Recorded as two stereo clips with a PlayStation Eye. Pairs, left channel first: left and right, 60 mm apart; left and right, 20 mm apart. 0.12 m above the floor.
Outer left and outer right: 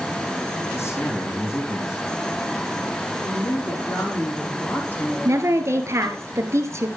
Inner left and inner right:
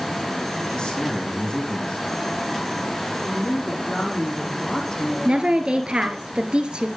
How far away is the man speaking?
About 5 m.